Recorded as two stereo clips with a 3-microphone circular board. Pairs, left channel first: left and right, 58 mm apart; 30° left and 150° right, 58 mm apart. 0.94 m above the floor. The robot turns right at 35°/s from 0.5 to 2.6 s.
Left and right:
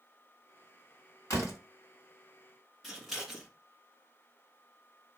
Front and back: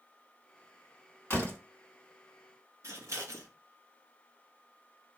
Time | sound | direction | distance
1.3 | a door slam | 75° left | 1.9 m
2.8 | scissors | 175° right | 1.5 m